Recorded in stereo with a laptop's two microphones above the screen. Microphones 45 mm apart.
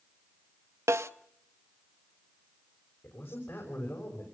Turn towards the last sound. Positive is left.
turn(degrees=65)  # may be behind; listen again after turning